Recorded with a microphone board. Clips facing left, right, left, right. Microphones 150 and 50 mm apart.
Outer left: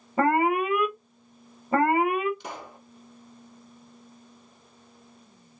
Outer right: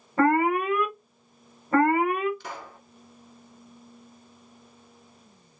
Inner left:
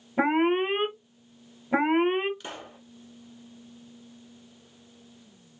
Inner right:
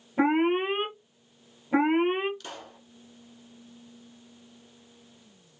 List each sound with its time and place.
0.2 s an alarm: 15° left (ahead or behind), 1.0 m
2.4 s a pop: 20° left (ahead or behind), 0.9 m